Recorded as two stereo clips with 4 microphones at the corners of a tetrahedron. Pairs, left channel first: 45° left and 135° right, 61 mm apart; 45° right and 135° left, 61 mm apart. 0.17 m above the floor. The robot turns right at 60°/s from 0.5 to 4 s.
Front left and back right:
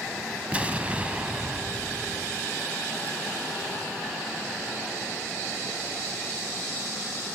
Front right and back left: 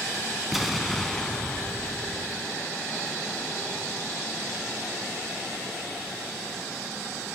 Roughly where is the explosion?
Behind right.